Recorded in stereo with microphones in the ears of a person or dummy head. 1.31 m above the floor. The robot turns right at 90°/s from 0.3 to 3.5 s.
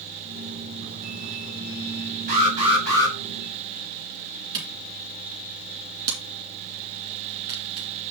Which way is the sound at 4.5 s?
20° right (ahead or behind).